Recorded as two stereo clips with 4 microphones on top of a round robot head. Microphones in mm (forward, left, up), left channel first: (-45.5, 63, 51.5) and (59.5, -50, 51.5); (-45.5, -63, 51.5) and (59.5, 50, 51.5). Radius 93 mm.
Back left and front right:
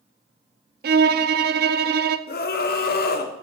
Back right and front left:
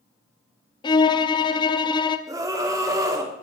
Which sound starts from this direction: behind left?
A scream, at 2.3 s.